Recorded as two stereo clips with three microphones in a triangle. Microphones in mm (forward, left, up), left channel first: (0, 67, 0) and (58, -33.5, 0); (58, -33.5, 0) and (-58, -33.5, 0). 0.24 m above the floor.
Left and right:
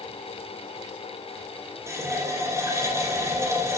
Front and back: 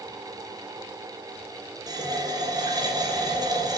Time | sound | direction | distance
1.9 | a running tap | 125° right | 3.5 m